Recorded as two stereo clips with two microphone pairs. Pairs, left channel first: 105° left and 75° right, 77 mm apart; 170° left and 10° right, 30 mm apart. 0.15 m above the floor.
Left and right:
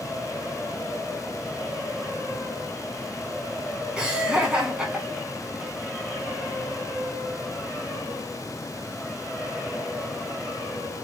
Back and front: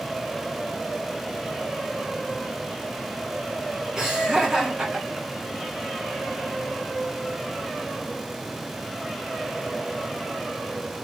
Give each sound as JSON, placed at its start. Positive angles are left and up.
{"t": 4.0, "sound": "laughter", "azimuth_deg": -20, "distance_m": 1.0}